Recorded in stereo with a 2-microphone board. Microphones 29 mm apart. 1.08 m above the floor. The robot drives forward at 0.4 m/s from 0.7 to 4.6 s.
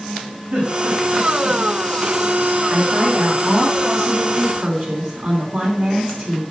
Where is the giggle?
60° right (ahead or behind), 3.5 m; by 1.6 s 55° right (ahead or behind), 4 m.